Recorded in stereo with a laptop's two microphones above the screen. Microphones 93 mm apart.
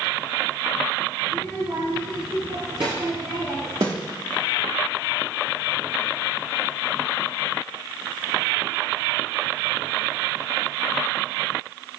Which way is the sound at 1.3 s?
85° right.